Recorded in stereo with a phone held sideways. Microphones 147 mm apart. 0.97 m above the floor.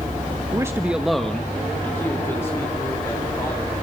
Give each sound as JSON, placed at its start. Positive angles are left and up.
{"t": 0.5, "sound": "a man speaking", "side_deg": -25, "distance_m": 0.8}